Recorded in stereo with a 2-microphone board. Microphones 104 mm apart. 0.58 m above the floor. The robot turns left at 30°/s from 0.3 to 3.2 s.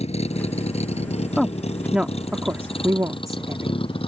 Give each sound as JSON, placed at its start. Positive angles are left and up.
{"t": 0.0, "sound": "a vehicle", "side_deg": 85}
{"t": 1.4, "sound": "a woman speaking", "side_deg": 5}